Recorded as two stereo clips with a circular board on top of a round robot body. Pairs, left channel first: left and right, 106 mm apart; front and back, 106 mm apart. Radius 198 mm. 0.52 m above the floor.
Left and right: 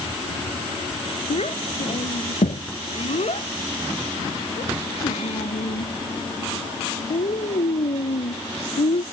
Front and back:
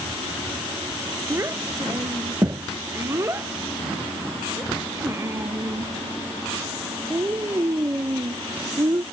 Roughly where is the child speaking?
Behind left.